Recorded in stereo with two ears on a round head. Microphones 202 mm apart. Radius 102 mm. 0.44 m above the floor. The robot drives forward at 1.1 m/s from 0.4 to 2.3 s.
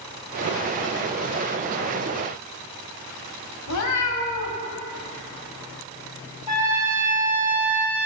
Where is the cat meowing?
75° left (ahead or behind), 1.2 m.